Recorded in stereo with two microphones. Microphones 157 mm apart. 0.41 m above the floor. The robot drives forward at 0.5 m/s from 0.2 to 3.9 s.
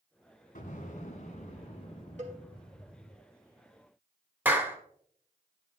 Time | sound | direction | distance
0.6 | an explosion | 65° left (ahead or behind) | 1.6 m
2.2 | a cowbell | 55° right (ahead or behind) | 1.9 m
4.5 | a clap | 10° right (ahead or behind) | 1.0 m